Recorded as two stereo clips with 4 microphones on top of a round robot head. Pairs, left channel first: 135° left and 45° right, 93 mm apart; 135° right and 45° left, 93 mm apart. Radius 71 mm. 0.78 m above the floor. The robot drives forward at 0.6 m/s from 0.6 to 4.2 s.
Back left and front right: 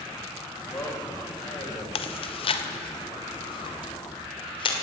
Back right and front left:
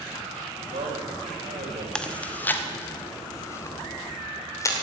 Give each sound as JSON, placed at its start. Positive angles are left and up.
{"t": 0.6, "sound": "a man speaking", "azimuth_deg": 65, "distance_m": 4.0}
{"t": 1.9, "sound": "chewing", "azimuth_deg": 145, "distance_m": 0.9}